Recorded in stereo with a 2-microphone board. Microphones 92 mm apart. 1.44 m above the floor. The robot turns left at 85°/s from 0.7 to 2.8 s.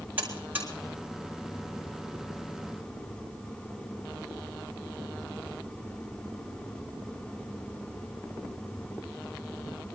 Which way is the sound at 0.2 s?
15° right (ahead or behind).